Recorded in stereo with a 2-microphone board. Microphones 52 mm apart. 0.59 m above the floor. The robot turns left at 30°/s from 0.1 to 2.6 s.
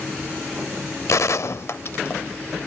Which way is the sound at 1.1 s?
80° left.